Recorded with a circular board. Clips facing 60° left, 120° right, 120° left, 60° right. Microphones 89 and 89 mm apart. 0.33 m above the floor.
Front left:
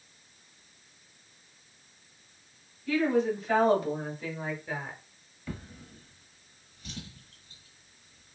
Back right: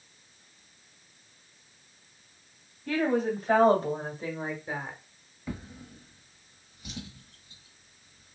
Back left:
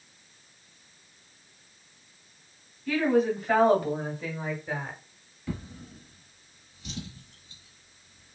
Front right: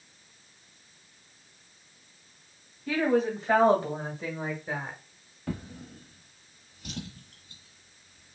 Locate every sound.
2.9 s a woman speaking: 110° right, 2 m; by 5.0 s 80° right, 1.4 m
5.5 s a drawer: 50° right, 1.1 m